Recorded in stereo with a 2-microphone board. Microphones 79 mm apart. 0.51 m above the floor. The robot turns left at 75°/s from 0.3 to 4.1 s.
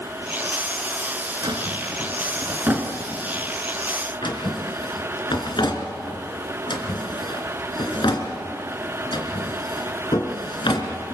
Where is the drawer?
60° right (ahead or behind), 2.5 m; by 11.2 s 80° left, 2.5 m.